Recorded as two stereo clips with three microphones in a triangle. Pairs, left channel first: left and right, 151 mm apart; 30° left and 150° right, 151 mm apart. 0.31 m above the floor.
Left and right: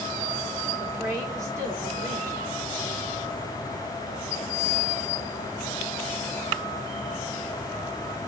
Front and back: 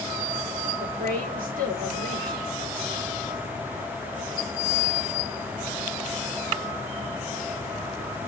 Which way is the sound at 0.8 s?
160° right.